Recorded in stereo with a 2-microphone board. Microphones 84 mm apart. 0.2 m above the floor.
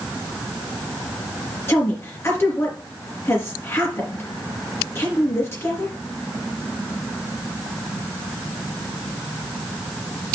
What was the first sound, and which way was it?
A woman speaking, 30° left (ahead or behind).